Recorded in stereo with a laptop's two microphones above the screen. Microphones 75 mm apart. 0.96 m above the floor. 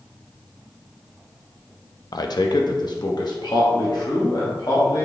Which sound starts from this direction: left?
A man speaking, at 2.1 s.